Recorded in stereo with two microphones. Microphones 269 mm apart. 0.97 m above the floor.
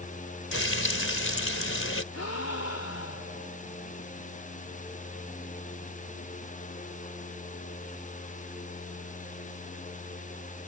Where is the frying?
50° left (ahead or behind).